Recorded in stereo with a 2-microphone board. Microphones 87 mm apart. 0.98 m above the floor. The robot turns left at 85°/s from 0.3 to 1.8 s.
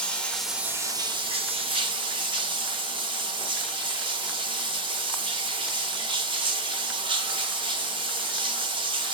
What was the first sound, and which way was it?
Running water, 15° left.